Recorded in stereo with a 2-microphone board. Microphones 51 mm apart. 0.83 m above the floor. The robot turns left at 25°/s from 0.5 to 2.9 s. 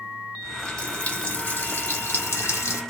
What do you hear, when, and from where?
0.4 s a running tap: 165° left, 1.3 m; by 2.8 s 110° left, 1.3 m